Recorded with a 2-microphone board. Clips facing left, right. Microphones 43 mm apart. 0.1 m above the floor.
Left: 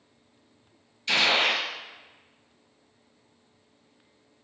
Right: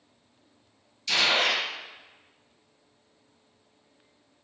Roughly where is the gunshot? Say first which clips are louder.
Left 1 dB; left.